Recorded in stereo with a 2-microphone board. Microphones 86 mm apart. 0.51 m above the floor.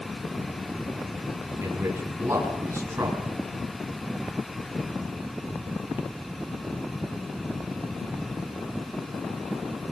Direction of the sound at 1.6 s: 30° right (ahead or behind).